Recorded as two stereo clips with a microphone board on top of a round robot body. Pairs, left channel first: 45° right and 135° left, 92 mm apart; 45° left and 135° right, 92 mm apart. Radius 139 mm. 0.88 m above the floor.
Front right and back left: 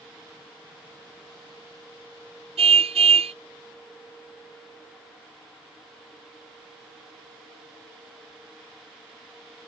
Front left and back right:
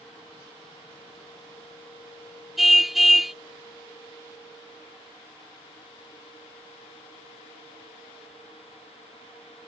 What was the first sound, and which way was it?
A car horn, 135° left.